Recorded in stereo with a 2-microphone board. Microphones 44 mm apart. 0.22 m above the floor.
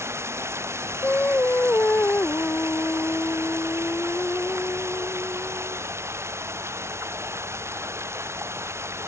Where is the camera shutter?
No camera shutter in this recording.